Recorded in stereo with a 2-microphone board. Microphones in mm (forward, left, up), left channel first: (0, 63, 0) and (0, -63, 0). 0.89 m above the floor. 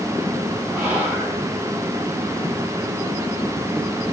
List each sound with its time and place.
0.7 s whispering: 15° right (ahead or behind), 4.5 m